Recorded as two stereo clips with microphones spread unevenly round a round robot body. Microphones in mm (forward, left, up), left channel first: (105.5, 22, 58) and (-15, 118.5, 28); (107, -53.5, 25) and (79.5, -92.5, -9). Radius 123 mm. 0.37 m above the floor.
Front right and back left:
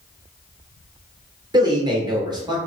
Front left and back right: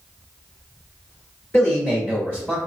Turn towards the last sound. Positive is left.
turn(degrees=150)